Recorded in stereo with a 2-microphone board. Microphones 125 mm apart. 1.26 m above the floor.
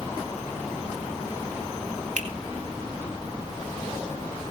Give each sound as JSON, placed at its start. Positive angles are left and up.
{"t": 2.2, "sound": "a finger snap", "side_deg": -85, "distance_m": 3.0}